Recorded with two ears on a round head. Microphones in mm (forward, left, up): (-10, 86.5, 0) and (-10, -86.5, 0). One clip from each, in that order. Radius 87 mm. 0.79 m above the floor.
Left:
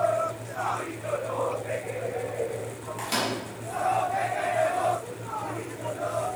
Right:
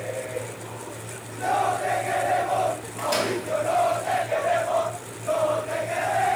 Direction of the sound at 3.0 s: 10° left (ahead or behind).